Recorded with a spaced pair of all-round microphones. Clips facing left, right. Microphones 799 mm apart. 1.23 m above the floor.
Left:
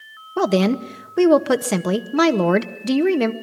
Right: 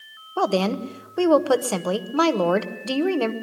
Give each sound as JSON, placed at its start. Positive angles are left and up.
{"t": 0.4, "sound": "a woman speaking", "side_deg": 55, "distance_m": 0.9}